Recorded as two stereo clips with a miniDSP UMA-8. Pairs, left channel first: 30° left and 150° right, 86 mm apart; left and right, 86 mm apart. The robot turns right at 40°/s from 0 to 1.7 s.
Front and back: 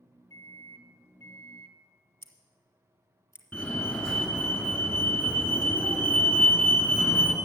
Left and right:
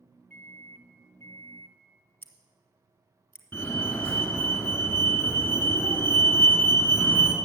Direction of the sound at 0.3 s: 35° left.